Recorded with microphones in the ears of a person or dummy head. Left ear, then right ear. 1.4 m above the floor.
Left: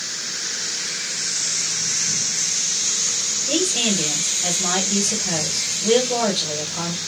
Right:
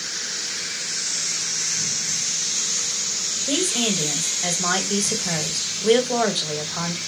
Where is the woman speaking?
60° right (ahead or behind), 1.3 m.